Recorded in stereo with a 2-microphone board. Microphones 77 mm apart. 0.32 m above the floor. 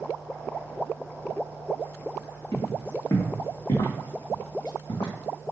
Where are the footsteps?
45° left (ahead or behind), 1.6 m; by 5.1 s 65° left (ahead or behind), 1.1 m.